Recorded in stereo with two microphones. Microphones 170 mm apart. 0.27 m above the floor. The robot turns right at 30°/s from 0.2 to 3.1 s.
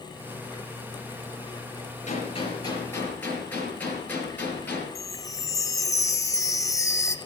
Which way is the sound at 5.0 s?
20° left (ahead or behind).